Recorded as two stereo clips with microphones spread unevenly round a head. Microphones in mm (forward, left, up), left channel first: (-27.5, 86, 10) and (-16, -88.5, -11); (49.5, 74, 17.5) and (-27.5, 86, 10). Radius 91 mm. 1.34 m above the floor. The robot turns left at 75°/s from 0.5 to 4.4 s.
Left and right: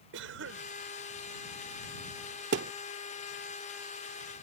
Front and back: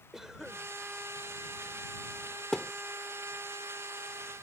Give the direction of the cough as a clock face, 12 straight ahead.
3 o'clock.